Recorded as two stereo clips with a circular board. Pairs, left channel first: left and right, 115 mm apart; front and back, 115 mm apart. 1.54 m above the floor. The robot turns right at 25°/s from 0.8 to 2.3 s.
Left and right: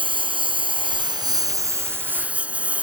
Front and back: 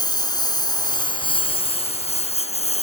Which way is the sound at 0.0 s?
50° right.